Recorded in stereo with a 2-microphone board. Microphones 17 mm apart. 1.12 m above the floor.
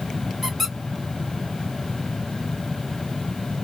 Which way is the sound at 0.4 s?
Centre (ahead or behind).